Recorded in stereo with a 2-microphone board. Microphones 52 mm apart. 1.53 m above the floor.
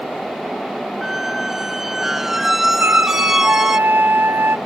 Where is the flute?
45° right (ahead or behind), 0.6 m.